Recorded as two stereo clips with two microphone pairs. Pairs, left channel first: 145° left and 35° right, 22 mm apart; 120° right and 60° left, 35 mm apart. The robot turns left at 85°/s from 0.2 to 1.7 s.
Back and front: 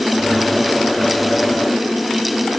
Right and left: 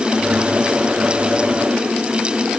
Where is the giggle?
I don't hear a giggle.